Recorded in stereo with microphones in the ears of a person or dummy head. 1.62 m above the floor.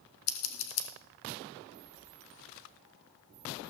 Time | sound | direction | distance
0.3 | scissors | 75° left (ahead or behind) | 1.4 m